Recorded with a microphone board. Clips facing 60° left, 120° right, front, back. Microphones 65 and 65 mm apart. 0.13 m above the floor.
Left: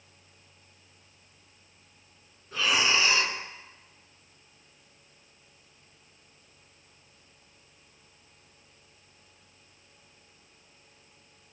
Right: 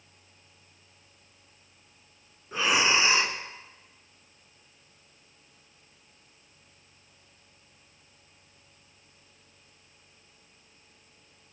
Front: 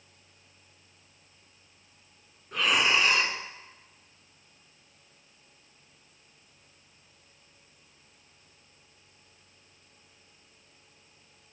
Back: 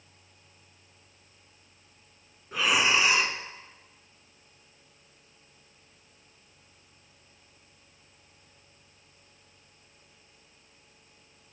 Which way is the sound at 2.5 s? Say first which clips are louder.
Right 2 dB, even; 100° right.